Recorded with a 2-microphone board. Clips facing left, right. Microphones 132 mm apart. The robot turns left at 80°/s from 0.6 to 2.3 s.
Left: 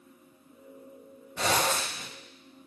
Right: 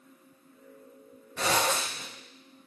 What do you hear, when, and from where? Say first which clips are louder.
1.4 s a zipper: even; 165° left, 1.6 m; by 2.0 s 110° left, 1.6 m